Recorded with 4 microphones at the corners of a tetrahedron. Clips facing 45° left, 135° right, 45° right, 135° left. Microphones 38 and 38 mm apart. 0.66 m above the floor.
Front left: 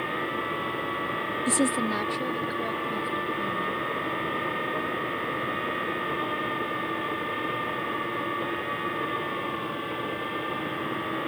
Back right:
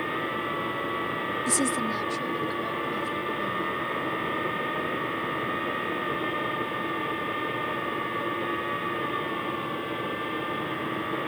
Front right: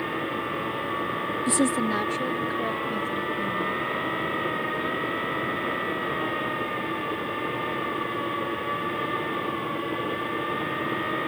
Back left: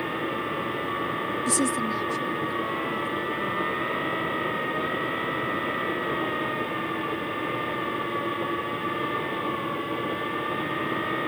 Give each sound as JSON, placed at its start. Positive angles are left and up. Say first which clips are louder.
{"t": 1.5, "sound": "a woman speaking", "louder": "front left 3 dB, front right 3 dB", "azimuth_deg": 5}